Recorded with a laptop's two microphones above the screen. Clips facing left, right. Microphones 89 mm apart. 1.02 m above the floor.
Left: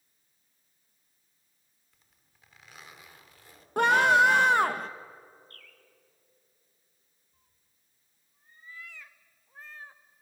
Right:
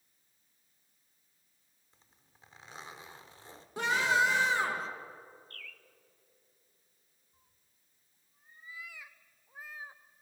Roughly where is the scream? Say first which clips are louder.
Left 7 dB; left.